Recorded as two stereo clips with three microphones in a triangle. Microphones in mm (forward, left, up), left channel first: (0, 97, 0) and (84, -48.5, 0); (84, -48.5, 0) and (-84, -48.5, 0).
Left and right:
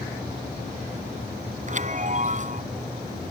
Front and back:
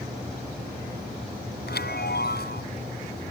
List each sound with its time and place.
1.7 s a chime: 15° right